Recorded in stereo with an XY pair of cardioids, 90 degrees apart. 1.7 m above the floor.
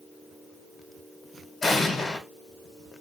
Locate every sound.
1.6 s an explosion: 45° left, 2.0 m